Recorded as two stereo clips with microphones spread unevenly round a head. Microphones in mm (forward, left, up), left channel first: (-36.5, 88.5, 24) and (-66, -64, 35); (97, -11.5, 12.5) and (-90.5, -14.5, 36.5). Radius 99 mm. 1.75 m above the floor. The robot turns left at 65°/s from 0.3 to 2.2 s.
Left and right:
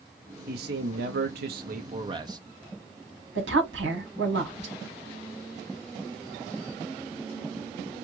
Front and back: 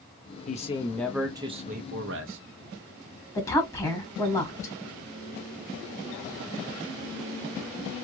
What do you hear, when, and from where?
0.5 s a man speaking: 50° right, 0.9 m; by 2.4 s 165° right, 0.9 m
3.4 s a woman speaking: 75° right, 2 m